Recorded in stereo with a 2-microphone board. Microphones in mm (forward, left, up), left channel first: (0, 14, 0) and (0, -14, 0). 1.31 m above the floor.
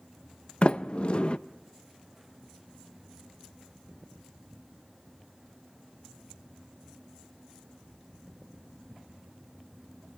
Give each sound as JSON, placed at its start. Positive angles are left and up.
{"t": 0.6, "sound": "a sliding door", "side_deg": 45, "distance_m": 0.6}